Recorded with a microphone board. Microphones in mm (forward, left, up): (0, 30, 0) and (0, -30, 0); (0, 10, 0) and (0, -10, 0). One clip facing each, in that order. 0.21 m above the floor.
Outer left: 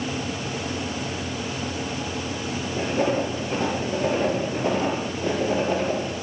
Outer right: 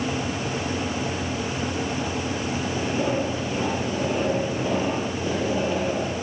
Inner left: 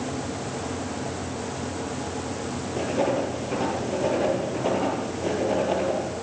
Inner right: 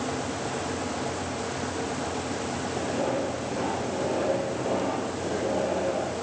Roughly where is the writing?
Left.